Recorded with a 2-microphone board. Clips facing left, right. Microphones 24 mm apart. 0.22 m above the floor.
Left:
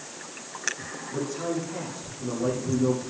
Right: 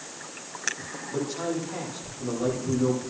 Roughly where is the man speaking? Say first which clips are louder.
Even; right.